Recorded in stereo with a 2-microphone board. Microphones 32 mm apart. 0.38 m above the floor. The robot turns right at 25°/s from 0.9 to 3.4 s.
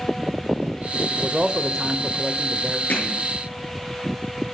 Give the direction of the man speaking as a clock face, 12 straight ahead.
2 o'clock.